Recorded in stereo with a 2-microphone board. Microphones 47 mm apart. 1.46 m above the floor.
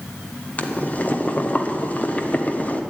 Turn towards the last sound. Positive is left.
turn(degrees=35)  # may be behind; listen again after turning